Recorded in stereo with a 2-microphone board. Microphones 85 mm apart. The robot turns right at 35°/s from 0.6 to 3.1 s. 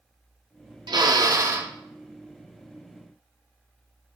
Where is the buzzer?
I don't hear a buzzer.